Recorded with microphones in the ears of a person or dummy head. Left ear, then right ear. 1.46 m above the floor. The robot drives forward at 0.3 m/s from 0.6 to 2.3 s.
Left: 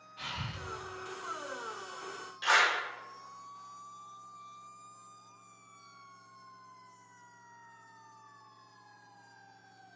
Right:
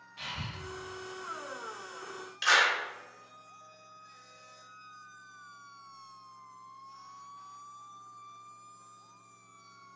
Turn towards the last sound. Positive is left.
turn(degrees=-60)  # may be behind; listen again after turning